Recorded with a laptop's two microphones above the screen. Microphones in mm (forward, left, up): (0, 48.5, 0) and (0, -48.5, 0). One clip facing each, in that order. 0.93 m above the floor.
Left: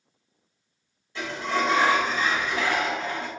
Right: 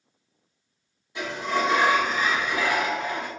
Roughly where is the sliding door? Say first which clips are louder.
Right 1 dB; centre.